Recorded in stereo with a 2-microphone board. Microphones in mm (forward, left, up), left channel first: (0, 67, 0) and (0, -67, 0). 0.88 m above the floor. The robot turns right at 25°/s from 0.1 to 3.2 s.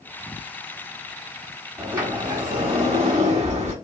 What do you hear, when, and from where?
1.8 s a sliding door: 160° right, 1.6 m; by 3.7 s 125° right, 1.6 m